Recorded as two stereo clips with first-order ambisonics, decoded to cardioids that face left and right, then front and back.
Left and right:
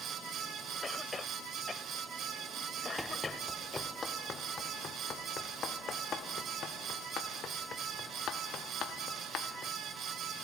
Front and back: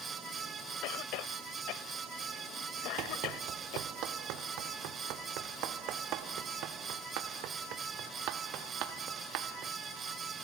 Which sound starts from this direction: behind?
Running footsteps, at 3.0 s.